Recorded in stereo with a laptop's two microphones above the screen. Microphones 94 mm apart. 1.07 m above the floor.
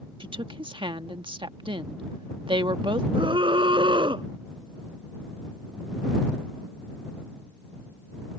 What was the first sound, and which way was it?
A woman speaking, 60° right (ahead or behind).